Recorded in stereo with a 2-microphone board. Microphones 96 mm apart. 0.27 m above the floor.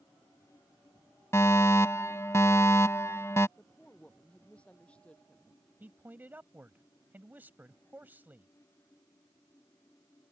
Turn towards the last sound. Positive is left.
turn(degrees=-20)  # may be behind; listen again after turning